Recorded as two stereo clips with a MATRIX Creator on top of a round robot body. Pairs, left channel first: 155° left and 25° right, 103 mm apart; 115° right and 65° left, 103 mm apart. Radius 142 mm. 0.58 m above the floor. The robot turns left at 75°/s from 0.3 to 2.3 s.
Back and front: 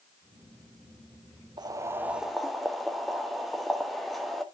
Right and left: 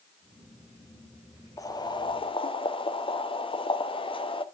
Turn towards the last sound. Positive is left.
turn(degrees=-115)